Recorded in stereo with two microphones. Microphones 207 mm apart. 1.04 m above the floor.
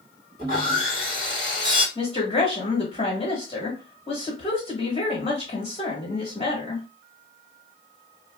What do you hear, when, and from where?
0.4 s sawing: 50° right (ahead or behind), 1.9 m
1.9 s a woman speaking: 30° left (ahead or behind), 2 m